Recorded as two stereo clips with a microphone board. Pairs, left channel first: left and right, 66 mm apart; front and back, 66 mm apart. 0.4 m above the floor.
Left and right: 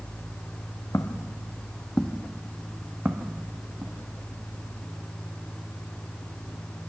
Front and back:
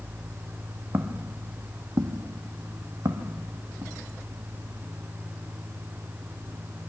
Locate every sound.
0.9 s footsteps: 130° left, 1.4 m; by 3.9 s 140° right, 1.9 m